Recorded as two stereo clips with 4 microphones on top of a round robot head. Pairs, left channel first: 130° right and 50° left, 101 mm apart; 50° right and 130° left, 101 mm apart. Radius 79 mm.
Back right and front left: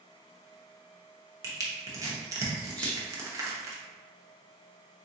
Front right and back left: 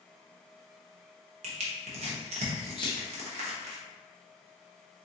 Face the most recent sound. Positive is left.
turn(degrees=-60)